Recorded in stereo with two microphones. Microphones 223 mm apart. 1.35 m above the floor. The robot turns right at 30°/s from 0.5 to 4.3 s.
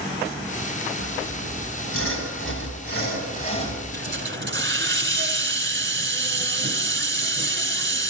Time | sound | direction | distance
1.0 | sawing | 70° left | 6.5 m
3.9 | a hiss | 55° right (ahead or behind) | 1.8 m